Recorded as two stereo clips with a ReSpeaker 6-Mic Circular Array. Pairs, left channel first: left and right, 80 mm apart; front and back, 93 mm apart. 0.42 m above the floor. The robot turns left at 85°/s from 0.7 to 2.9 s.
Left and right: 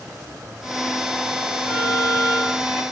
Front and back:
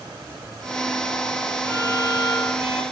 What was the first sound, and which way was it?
A violin, 70° left.